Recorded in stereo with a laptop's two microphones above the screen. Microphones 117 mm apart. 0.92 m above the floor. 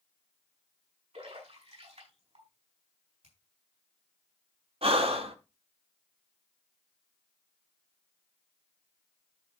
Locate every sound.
1.1 s a splash: 65° right (ahead or behind), 5.5 m
3.2 s a finger snap: 70° right (ahead or behind), 7 m
4.8 s breathing: 55° right (ahead or behind), 1.2 m